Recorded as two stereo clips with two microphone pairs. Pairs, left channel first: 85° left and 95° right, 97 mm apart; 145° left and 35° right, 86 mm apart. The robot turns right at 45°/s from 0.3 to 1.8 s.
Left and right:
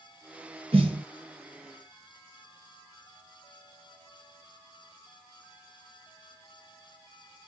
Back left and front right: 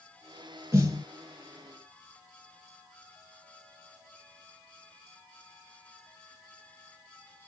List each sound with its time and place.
0.7 s a snare drum: 95° right, 2 m; by 1.0 s 80° right, 2 m